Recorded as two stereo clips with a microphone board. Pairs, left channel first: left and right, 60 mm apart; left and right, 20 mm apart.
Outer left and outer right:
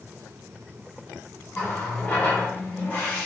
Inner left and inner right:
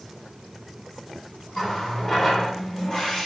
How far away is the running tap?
About 1.6 m.